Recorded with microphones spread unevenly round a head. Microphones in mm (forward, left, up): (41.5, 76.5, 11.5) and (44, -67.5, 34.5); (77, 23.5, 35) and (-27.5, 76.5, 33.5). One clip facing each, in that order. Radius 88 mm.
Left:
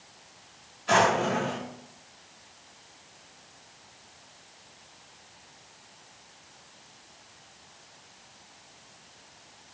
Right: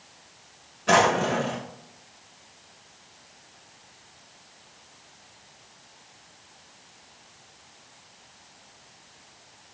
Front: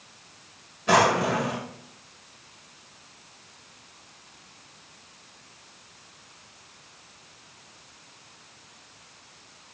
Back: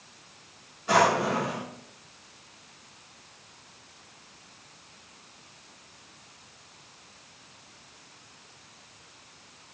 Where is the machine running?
No machine running in this recording.